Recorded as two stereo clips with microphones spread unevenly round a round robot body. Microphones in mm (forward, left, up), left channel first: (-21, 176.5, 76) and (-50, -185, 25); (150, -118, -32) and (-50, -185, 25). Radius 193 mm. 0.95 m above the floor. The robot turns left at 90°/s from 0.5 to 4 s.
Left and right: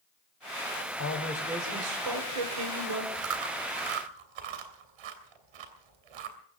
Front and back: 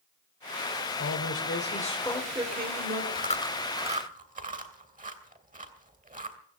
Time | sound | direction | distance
1.0 | a man speaking | 35° left | 4 m
3.1 | chewing | 30° right | 3 m